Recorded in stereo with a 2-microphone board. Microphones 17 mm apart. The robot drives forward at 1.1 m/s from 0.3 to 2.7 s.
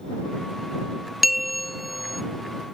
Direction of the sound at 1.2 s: 5° right (ahead or behind).